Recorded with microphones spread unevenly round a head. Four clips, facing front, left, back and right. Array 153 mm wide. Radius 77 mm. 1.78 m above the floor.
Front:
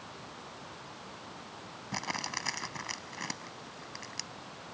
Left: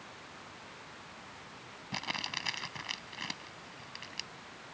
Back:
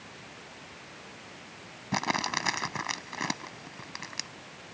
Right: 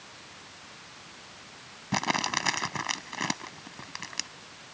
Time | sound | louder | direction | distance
1.9 | crumpling | right 12 dB, back 8 dB | 135° right | ?